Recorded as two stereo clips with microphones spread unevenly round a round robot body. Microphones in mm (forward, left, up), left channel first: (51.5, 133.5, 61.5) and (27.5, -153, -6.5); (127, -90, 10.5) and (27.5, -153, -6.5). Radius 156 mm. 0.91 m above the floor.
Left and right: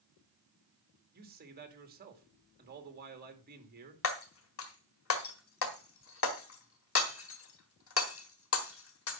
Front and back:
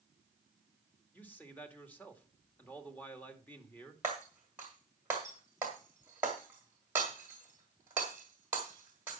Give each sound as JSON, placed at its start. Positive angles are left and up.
{"t": 1.1, "sound": "a man speaking", "azimuth_deg": -45, "distance_m": 2.5}
{"t": 4.0, "sound": "breaking glass", "azimuth_deg": 130, "distance_m": 1.4}